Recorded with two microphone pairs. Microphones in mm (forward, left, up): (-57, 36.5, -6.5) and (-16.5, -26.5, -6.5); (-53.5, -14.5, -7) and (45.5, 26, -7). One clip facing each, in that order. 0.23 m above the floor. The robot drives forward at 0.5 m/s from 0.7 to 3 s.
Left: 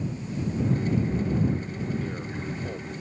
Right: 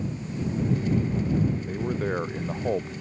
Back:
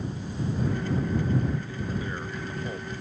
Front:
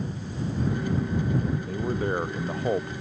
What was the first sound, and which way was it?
A man speaking, 20° right.